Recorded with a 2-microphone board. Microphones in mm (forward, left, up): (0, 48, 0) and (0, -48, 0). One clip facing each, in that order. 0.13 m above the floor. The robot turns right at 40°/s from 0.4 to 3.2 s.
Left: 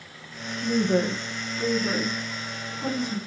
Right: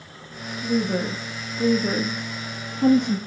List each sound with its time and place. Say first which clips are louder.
0.6 s a woman speaking: left 1 dB; 20° left (ahead or behind), 2.5 m; by 3.2 s 65° right (ahead or behind), 2.5 m